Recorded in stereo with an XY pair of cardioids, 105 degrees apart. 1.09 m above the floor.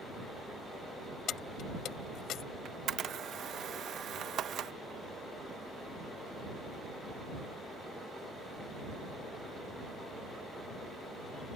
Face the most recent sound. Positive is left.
turn(degrees=-60)